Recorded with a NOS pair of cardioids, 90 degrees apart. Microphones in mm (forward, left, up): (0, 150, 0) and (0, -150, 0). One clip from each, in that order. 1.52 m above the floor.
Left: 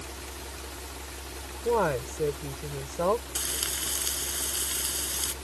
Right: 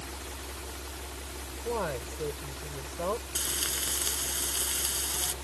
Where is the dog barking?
No dog barking in this recording.